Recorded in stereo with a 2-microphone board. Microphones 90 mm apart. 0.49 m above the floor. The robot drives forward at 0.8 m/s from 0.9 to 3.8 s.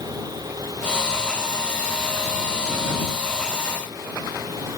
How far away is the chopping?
No chopping in this recording.